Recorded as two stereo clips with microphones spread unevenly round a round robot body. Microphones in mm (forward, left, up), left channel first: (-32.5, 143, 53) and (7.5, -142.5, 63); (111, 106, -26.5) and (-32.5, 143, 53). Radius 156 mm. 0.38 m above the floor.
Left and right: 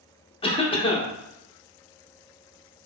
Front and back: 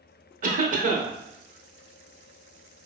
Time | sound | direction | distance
0.4 | a cough | 135° left | 0.8 m